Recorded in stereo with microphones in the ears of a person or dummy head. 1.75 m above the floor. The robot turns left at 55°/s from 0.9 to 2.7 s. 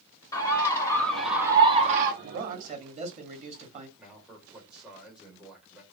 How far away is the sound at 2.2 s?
About 1.0 m.